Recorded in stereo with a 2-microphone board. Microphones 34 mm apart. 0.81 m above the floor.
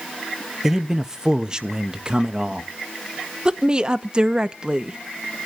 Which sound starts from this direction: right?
A woman speaking, at 3.5 s.